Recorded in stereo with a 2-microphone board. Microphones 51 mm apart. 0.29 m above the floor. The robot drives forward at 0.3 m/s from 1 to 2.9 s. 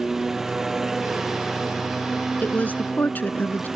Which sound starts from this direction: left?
A woman speaking, at 2.4 s.